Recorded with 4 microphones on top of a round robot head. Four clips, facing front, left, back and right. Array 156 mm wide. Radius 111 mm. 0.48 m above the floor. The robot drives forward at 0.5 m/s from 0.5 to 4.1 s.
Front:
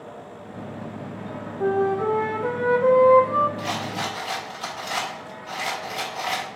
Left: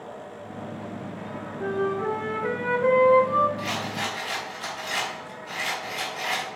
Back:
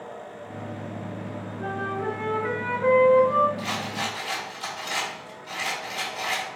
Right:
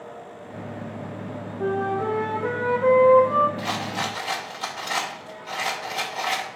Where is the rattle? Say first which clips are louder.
Right 2 dB, front 2 dB; 80° right, 2.5 m; by 6.5 s 85° right, 2.5 m.